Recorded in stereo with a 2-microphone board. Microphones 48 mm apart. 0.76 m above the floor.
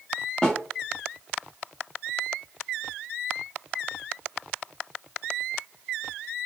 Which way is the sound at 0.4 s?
20° left (ahead or behind).